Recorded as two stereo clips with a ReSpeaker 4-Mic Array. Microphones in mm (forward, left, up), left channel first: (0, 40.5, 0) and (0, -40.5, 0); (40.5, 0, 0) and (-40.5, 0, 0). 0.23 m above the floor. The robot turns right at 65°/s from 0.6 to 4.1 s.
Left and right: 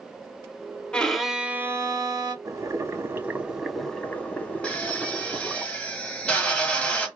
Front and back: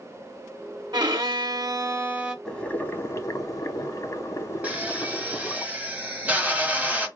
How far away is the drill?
About 0.9 m.